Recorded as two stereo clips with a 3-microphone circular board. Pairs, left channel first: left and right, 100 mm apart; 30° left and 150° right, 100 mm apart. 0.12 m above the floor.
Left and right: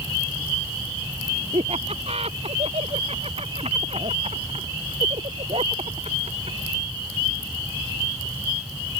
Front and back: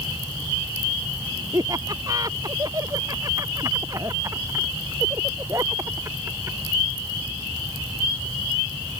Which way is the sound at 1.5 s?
95° right.